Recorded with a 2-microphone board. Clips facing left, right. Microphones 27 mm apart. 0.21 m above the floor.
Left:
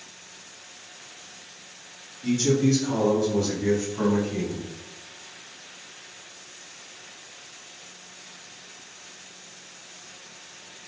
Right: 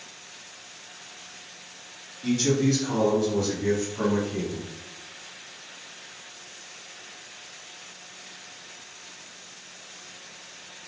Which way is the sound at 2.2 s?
25° right (ahead or behind).